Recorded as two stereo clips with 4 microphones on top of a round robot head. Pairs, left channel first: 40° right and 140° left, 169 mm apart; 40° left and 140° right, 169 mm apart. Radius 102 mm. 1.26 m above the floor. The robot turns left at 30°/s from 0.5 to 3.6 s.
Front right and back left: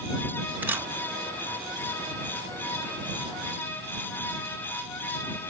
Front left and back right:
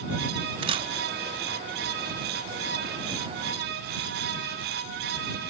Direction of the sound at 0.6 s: 150° right.